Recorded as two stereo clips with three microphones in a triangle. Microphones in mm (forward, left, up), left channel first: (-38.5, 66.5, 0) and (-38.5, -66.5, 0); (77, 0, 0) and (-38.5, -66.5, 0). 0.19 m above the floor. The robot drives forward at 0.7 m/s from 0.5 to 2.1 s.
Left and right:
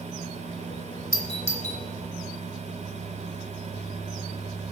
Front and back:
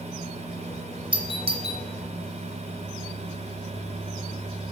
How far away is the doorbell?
About 1.7 m.